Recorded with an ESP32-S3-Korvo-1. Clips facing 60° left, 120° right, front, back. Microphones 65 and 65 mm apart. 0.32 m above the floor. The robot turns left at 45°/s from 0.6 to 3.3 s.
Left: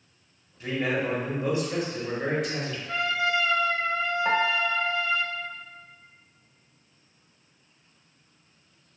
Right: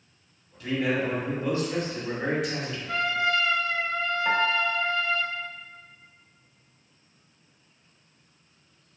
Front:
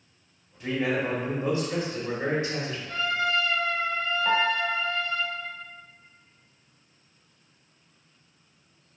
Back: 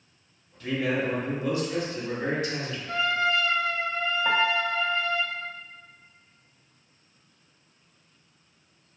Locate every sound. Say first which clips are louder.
0.6 s a man speaking: right 1 dB, even; 50° left, 1.3 m; by 2.8 s 50° right, 1.3 m
2.9 s a trumpet: right 1 dB, back 2 dB; 150° left, 0.6 m; by 5.2 s 130° left, 0.6 m
4.2 s a piano: even, even; 115° left, 0.7 m